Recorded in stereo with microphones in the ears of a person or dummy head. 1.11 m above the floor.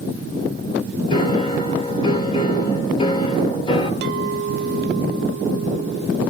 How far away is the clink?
About 0.7 m.